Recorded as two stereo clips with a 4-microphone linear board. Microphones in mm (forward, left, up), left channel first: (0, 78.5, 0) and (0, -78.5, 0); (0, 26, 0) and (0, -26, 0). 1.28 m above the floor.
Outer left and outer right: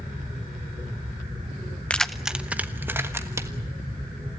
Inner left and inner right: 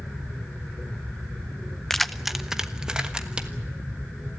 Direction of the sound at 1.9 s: 5° left (ahead or behind).